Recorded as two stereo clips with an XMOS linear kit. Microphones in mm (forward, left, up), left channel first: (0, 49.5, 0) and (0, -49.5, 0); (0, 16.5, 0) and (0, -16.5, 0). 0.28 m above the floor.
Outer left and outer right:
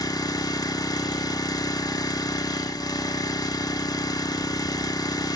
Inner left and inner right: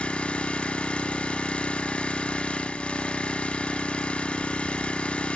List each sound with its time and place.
0.0 s an engine running: 40° left (ahead or behind), 1.0 m